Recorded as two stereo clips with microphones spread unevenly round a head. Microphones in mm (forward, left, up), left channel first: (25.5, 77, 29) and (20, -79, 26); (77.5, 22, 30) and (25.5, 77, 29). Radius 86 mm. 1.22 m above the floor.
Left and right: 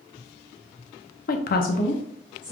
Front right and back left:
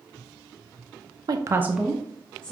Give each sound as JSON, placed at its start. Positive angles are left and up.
{"t": 1.3, "sound": "a woman speaking", "azimuth_deg": 115, "distance_m": 0.6}